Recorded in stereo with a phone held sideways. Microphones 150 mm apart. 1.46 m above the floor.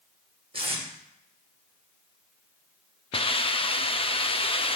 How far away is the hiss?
About 0.6 m.